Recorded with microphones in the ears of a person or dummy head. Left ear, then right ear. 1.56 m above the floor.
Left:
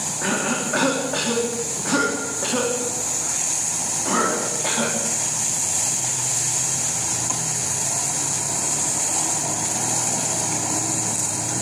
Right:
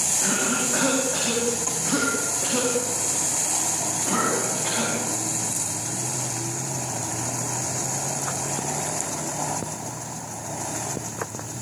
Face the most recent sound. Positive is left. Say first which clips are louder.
# left 1 dB
turn(degrees=25)  # may be behind; listen again after turning